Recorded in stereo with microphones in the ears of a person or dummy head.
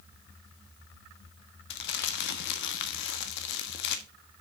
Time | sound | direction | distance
1.7 | crumpling | 65° left (ahead or behind) | 1.2 m